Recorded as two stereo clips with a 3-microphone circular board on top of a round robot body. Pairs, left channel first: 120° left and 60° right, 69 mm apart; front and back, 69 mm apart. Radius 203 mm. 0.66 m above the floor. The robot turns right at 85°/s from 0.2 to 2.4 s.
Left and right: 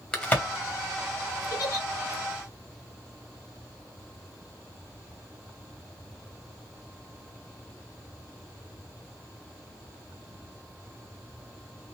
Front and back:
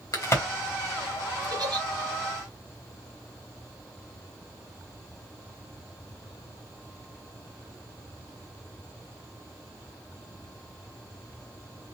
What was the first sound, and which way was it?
A crack, 40° left.